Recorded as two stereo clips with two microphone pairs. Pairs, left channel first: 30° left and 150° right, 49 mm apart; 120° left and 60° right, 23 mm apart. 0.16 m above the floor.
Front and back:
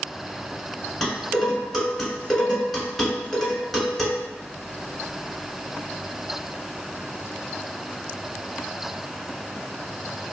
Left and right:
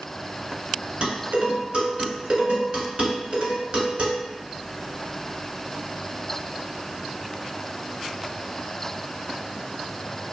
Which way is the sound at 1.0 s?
55° right.